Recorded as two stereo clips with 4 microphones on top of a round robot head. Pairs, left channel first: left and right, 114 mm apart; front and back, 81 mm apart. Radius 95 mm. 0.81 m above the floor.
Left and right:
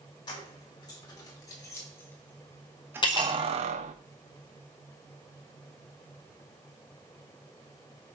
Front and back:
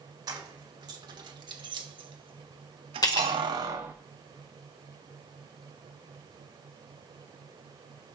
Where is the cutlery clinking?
40° left, 1.8 m.